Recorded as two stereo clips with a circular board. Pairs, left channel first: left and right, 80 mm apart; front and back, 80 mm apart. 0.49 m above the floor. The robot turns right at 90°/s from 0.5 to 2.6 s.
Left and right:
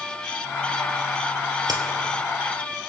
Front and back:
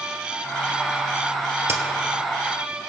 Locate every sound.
1.7 s a crack: 130° right, 1.6 m; by 1.8 s 115° right, 1.6 m